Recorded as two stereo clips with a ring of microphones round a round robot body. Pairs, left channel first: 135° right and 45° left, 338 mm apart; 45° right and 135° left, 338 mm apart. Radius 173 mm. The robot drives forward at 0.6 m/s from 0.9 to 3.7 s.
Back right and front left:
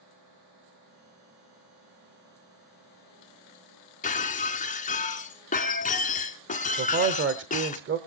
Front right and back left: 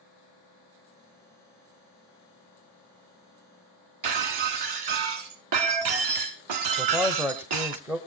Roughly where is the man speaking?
Ahead left.